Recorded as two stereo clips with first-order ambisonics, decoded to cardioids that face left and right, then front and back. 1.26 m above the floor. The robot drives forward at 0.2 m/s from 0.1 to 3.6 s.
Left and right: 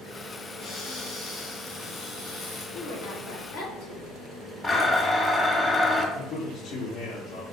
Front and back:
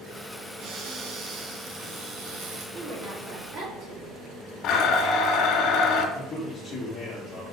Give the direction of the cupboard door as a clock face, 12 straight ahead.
7 o'clock.